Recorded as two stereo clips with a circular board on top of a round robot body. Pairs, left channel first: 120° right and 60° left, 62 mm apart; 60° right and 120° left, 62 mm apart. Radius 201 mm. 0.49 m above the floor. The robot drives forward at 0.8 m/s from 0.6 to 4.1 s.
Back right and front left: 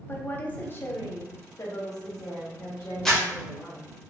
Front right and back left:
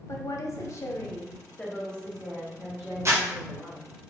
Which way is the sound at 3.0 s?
160° left.